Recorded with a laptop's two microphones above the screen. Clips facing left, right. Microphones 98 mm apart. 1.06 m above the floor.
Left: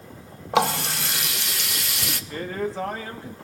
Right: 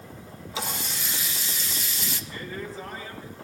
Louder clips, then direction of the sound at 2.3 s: Left 10 dB; 75° left (ahead or behind).